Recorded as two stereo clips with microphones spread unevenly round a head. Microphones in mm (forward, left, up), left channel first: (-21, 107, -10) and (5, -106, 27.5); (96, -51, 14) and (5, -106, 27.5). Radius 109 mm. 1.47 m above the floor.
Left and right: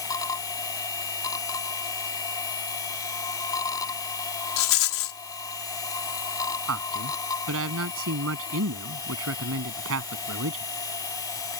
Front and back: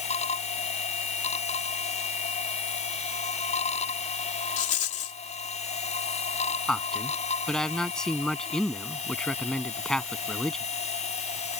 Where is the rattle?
65° left.